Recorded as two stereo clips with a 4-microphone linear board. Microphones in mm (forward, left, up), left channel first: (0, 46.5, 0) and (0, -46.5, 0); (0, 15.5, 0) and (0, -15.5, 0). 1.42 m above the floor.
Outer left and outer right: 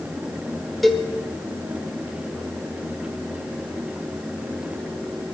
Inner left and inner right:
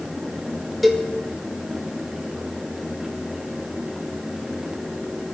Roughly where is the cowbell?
Centre.